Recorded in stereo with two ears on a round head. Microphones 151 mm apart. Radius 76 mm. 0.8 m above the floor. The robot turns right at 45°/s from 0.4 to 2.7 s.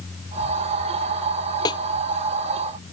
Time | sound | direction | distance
1.6 | a snare drum | 25° left (ahead or behind) | ?